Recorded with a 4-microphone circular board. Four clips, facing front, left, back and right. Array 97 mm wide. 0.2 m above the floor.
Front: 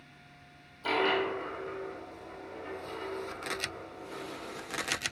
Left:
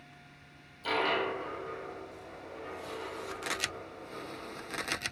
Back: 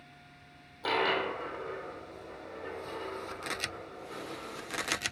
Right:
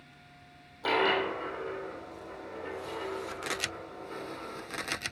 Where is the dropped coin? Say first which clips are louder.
Right 3 dB, front 1 dB; 125° right, 3.5 m.